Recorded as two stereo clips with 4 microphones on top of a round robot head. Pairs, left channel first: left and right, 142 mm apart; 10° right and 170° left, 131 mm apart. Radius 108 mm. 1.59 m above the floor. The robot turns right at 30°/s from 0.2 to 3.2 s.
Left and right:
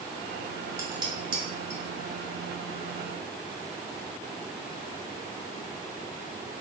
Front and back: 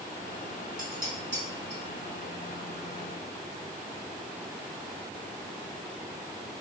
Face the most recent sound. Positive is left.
turn(degrees=-85)